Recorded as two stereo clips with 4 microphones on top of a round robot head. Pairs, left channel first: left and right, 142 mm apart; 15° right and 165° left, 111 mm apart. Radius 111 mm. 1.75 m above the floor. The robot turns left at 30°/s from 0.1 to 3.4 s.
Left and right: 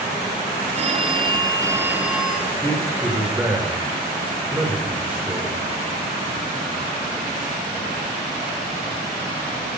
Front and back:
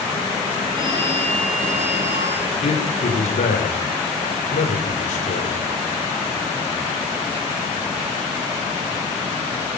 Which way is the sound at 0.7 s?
135° right.